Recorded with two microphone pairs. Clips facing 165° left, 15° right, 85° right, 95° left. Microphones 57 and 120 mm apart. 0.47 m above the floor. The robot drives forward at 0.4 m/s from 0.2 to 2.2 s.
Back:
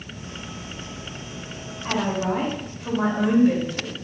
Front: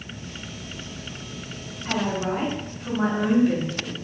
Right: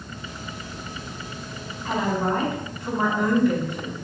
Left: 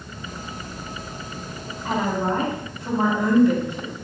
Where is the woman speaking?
155° left, 3.5 m; by 4.0 s 160° left, 3.5 m.